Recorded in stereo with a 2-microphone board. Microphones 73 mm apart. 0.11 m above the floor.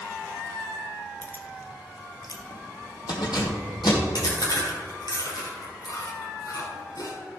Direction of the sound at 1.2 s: 25° left (ahead or behind).